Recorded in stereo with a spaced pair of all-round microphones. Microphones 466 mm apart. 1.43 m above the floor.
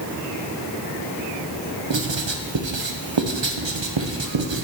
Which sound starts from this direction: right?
Writing, at 1.9 s.